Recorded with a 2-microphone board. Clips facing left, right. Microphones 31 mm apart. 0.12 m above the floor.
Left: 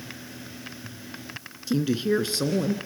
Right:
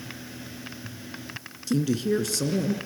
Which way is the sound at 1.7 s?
20° left (ahead or behind).